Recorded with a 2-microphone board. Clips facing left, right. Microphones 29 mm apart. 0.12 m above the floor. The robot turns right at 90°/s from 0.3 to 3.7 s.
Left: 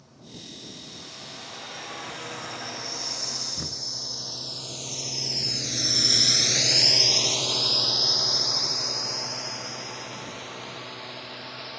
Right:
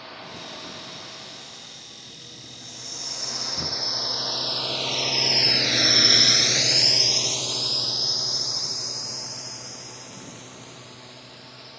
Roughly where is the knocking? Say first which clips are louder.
Right 5 dB; centre.